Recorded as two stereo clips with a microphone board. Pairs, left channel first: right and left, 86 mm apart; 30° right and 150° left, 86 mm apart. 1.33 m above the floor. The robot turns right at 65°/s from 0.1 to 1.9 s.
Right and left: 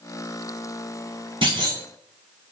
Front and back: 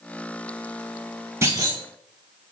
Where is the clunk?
95° left, 4.5 m; by 1.8 s 120° left, 4.5 m.